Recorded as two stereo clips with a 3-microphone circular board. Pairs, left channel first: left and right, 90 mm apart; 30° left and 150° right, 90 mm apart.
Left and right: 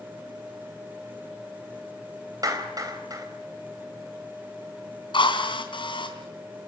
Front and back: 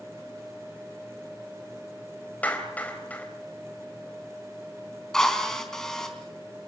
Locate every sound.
2.4 s a clap: 45° right, 4 m
5.1 s a drill: 115° left, 3.5 m